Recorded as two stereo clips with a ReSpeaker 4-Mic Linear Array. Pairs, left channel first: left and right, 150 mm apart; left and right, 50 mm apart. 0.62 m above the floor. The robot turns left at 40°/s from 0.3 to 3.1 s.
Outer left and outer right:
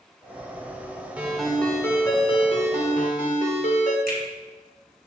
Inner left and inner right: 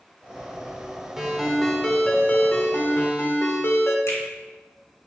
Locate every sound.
1.2 s a ringtone: 170° right, 1.4 m; by 4.0 s 110° left, 1.4 m
4.1 s a finger snap: 85° left, 3 m